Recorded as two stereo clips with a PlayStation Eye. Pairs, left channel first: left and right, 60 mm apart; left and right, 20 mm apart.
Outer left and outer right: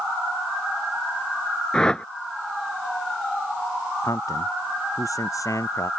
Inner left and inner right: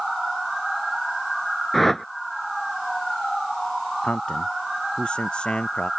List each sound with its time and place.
1.7 s a whoosh: 15° left (ahead or behind)
4.0 s a man speaking: 60° left (ahead or behind)